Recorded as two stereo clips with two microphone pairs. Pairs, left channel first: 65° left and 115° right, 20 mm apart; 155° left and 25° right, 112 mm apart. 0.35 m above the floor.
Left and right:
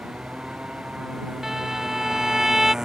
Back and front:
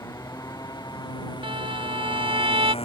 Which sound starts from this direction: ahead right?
A violin, at 1.4 s.